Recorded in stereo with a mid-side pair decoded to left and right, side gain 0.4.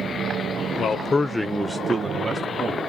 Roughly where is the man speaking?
Left.